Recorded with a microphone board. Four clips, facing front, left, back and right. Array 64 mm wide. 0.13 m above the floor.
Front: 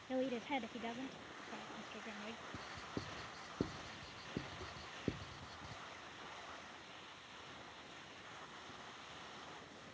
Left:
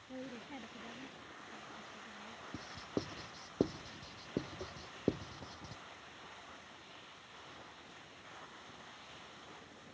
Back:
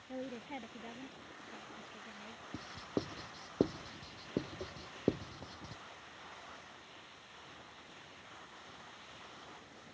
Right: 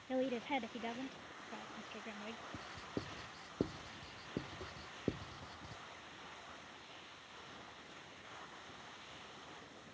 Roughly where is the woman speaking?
Ahead right.